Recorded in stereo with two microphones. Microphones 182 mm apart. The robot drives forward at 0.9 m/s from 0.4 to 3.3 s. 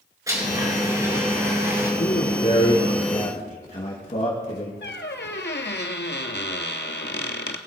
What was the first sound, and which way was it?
A blender, 20° right (ahead or behind).